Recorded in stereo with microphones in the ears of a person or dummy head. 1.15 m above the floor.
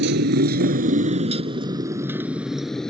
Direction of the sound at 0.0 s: 60° right (ahead or behind).